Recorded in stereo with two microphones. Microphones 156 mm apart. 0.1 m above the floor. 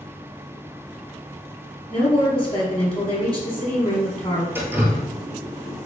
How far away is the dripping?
About 0.9 m.